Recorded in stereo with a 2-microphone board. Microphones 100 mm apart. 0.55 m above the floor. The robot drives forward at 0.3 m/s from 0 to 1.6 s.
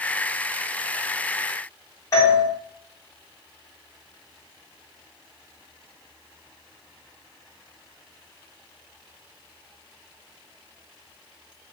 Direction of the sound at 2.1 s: 30° left (ahead or behind).